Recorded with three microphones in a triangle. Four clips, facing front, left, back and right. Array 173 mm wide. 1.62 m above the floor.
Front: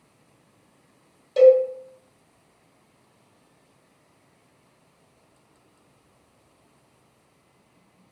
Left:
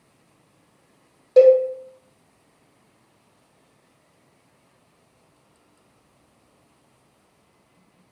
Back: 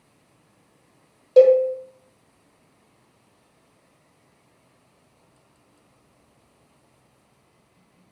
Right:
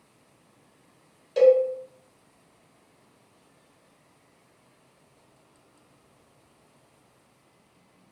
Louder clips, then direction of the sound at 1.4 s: Left 5 dB, back 1 dB; 150° left.